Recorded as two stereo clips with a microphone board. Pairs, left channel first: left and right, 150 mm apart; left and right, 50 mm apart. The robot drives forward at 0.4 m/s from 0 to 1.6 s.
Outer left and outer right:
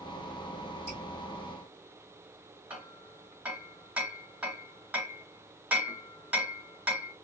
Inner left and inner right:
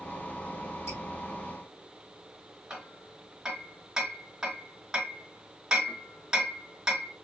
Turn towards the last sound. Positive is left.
turn(degrees=-10)  # may be behind; listen again after turning